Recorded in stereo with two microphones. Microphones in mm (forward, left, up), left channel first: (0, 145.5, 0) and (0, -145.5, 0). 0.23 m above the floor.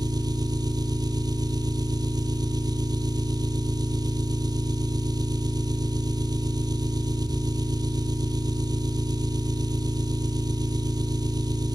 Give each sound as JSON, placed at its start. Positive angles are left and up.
{"t": 0.0, "sound": "an engine running", "side_deg": -15, "distance_m": 1.6}